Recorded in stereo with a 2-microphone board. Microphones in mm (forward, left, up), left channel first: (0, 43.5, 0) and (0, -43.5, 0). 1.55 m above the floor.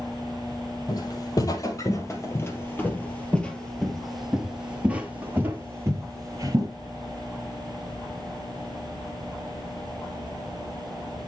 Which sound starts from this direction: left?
Footsteps, at 0.9 s.